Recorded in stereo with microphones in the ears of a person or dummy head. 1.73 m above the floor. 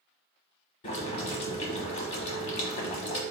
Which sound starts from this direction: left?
Boiling, at 0.8 s.